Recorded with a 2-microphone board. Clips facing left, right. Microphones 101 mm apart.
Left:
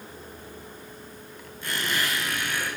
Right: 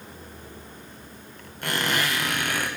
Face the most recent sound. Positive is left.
turn(degrees=-65)  # may be behind; listen again after turning